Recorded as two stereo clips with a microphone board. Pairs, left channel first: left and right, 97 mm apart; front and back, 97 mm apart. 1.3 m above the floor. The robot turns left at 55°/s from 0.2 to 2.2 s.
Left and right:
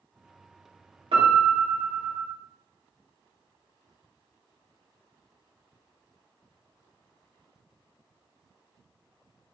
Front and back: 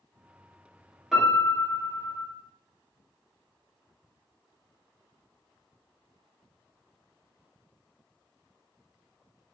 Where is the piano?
95° right, 1.0 m; by 2.3 s 155° right, 1.0 m.